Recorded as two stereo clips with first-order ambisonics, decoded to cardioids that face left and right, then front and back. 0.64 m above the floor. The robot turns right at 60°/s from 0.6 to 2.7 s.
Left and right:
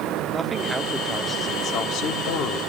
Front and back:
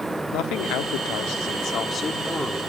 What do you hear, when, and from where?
0.3 s a man speaking: 20° right, 1.0 m; by 2.6 s 100° left, 1.0 m